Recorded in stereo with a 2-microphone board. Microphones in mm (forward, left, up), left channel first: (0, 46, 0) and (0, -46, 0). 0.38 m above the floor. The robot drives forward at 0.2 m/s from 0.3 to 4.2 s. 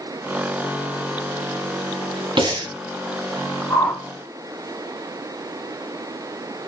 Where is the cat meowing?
No cat meowing in this recording.